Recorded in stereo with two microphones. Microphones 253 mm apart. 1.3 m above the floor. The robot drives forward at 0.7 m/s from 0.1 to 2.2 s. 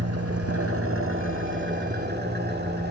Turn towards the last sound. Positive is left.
turn(degrees=-40)  # may be behind; listen again after turning